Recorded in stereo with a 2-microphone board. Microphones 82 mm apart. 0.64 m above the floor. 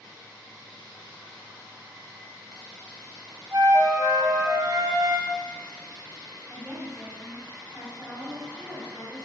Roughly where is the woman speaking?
Centre.